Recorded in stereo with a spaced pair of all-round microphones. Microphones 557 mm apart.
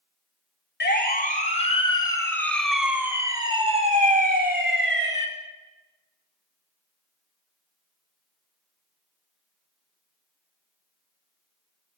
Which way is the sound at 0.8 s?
20° left (ahead or behind).